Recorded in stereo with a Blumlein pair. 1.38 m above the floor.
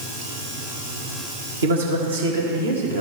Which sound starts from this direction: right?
A man speaking, at 1.6 s.